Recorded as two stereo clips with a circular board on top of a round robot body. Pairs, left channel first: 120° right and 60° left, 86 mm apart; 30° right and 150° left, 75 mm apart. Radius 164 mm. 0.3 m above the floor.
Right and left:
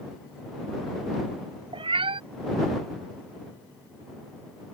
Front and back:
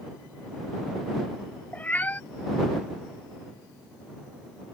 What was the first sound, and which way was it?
A cat meowing, 40° left.